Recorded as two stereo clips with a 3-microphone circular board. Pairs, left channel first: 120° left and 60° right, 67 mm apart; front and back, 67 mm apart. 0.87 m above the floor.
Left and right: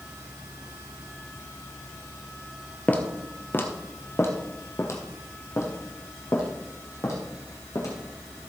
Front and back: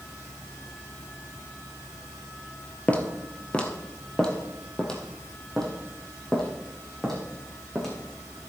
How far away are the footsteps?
About 1.2 m.